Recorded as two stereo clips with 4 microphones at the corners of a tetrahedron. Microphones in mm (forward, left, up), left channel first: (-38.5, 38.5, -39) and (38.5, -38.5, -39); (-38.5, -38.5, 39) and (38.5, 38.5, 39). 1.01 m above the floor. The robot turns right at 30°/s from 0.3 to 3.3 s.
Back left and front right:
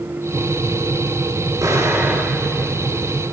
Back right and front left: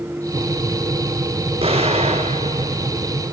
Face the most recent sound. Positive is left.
turn(degrees=70)